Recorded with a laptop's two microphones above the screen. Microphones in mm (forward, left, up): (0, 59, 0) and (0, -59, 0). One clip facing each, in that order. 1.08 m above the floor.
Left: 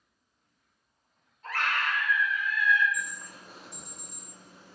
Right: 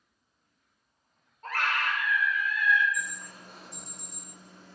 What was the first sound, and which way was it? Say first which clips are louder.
A scream: right 1 dB; 45° right (ahead or behind).